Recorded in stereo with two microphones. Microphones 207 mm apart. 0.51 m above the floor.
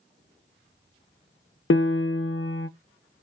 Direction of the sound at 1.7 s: 70° left (ahead or behind).